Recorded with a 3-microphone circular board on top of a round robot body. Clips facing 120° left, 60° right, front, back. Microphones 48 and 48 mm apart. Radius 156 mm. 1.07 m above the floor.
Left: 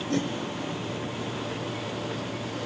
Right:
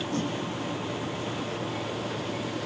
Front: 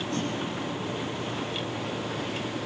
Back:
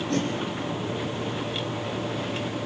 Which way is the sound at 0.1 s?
140° left.